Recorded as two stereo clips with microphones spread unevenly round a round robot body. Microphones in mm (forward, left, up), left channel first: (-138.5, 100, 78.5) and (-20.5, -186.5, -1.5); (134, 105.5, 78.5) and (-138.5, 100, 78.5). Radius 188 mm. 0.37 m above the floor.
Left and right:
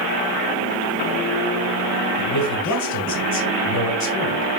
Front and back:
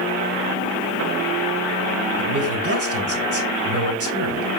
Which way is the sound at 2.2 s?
150° left.